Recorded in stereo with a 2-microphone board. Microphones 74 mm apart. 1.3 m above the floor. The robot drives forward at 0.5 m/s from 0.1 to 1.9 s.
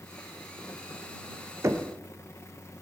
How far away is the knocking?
About 0.8 m.